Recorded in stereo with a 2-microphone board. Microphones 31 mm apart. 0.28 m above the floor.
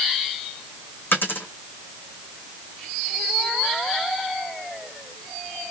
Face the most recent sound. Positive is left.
turn(degrees=80)